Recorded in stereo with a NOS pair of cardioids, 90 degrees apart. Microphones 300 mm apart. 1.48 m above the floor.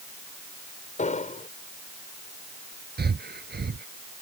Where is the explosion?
25° left.